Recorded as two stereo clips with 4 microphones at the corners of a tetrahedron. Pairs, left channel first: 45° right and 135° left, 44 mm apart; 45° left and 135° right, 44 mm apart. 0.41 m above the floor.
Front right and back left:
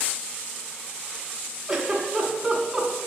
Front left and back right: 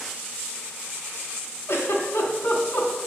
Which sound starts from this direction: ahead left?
A giggle, at 1.7 s.